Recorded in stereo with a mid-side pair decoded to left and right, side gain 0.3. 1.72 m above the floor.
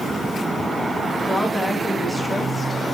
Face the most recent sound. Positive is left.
turn(degrees=-10)